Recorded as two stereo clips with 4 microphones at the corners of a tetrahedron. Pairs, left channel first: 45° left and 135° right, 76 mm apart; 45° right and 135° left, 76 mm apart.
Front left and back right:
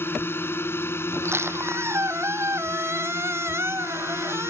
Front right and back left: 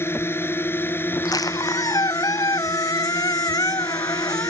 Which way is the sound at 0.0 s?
5° right.